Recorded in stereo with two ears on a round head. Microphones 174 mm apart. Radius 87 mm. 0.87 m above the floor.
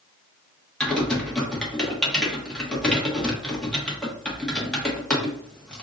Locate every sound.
0.8 s typing on a keyboard: 5° left (ahead or behind), 1.1 m